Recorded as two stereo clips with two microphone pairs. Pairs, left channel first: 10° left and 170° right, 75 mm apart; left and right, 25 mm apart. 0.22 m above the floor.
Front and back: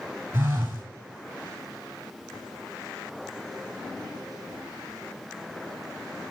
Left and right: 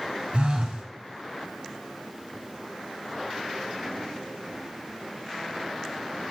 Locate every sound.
0.3 s a phone buzzing: 115° right, 1.3 m